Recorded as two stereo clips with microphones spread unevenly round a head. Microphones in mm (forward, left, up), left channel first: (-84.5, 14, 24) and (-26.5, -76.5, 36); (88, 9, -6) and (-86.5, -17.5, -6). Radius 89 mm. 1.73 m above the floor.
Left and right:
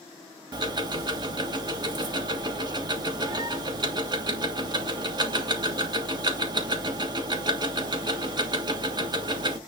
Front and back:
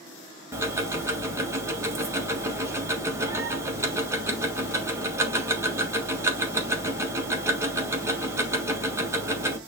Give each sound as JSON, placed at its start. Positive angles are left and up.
{"t": 0.5, "sound": "ticking", "azimuth_deg": -100, "distance_m": 1.4}